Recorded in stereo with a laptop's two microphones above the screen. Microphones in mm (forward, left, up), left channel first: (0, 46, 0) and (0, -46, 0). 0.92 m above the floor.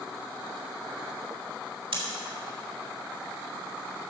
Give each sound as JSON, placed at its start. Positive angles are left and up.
{"t": 1.9, "sound": "scissors", "side_deg": -75, "distance_m": 2.0}